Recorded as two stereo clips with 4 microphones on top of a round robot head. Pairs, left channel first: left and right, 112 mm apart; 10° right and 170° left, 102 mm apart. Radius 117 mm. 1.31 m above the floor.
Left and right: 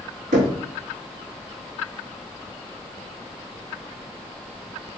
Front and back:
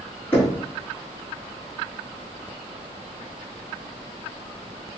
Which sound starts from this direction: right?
Knocking, at 0.3 s.